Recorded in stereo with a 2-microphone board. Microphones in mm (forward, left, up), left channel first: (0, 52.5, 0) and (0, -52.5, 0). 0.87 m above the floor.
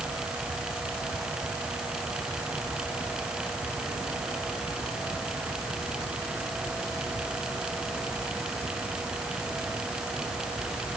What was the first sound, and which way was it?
Only background noise.